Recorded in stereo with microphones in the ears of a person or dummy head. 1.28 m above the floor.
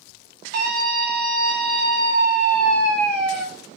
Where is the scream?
55° right (ahead or behind), 3 m.